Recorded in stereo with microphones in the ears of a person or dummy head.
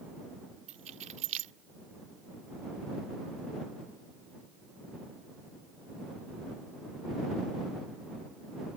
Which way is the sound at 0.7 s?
40° right (ahead or behind).